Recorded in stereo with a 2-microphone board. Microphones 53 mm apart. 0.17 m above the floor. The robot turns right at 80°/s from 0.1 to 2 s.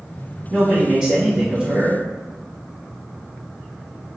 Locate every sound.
0.5 s a man speaking: 5° right (ahead or behind), 1.2 m; by 2.0 s 15° right (ahead or behind), 1.2 m